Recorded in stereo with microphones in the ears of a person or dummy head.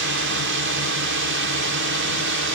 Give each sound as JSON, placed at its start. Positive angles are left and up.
{"t": 0.0, "sound": "a drone", "side_deg": -60}